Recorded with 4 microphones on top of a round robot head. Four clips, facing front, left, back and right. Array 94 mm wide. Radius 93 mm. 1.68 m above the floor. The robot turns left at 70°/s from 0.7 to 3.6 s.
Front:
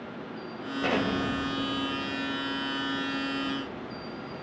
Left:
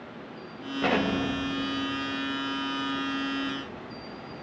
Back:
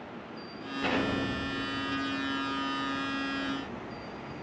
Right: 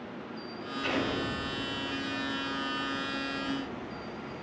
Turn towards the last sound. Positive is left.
turn(degrees=-130)